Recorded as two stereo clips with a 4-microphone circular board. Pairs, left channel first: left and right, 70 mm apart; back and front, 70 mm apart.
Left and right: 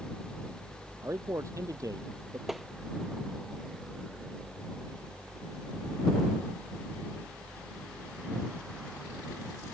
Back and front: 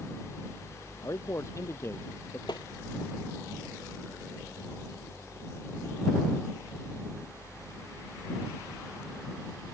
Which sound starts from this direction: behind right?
A man speaking, at 1.0 s.